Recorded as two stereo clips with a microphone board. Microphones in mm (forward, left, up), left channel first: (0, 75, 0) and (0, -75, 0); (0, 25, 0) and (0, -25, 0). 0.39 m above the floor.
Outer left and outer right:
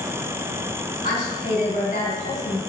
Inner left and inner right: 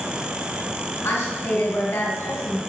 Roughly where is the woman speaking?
Left.